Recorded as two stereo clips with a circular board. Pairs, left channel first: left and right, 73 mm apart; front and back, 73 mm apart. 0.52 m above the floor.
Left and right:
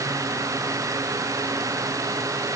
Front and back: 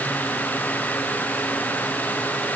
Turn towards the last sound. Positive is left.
No sound to turn to.